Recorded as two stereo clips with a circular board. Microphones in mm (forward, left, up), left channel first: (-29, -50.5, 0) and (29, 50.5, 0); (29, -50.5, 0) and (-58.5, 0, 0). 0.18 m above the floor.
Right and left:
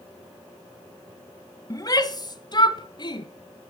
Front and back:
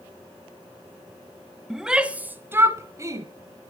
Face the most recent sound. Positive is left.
turn(degrees=-160)